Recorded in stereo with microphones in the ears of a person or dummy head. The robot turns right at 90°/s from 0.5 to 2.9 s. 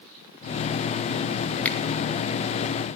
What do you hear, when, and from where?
1.6 s a finger snap: 5° left (ahead or behind), 3 m; by 1.8 s 15° left (ahead or behind), 3 m